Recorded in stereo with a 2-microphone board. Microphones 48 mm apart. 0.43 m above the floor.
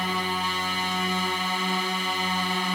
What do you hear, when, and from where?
0.0 s a drone: centre (ahead or behind)